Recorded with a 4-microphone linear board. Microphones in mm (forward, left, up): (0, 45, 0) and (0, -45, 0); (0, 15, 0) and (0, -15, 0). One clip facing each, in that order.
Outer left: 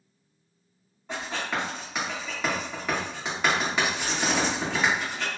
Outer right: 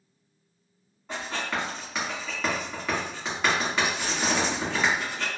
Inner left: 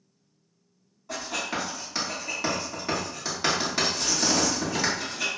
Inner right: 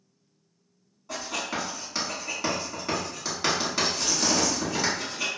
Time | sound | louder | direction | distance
1.1 | writing | even, inner left 1 dB | 5° left (ahead or behind) | 1.4 m